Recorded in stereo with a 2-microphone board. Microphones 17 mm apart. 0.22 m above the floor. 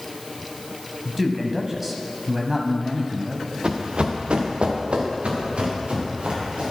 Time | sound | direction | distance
1.1 | a man speaking | 10° right (ahead or behind) | 1.0 m
3.6 | running footsteps | 50° right (ahead or behind) | 1.3 m